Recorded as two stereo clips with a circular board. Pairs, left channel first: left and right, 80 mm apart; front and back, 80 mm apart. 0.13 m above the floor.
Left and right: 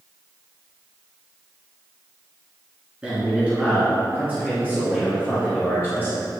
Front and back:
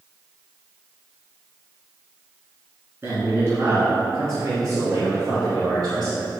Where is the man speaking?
155° right, 1.7 m.